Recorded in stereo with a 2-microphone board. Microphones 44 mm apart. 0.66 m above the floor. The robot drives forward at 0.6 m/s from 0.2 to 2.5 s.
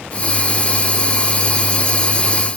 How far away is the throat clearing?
I don't hear throat clearing.